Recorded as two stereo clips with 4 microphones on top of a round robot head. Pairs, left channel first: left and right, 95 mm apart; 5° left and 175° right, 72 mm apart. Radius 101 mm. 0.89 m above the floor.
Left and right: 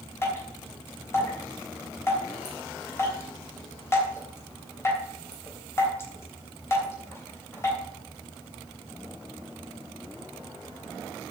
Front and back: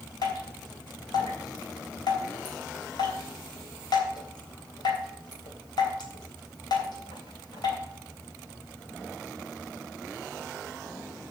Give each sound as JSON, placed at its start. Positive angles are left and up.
{"t": 0.2, "sound": "dripping", "azimuth_deg": 25, "distance_m": 3.5}